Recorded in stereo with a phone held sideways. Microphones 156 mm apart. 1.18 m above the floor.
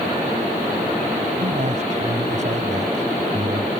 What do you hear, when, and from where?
1.4 s a man speaking: 50° right (ahead or behind); by 3.7 s 55° right (ahead or behind)